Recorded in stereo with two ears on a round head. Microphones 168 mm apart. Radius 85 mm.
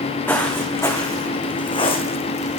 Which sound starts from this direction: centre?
Footsteps, at 0.3 s.